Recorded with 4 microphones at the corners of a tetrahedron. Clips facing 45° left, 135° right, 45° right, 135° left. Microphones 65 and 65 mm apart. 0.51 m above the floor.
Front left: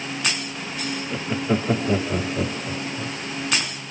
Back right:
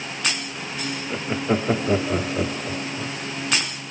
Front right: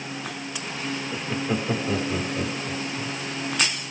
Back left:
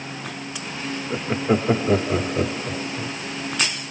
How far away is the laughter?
About 1.3 m.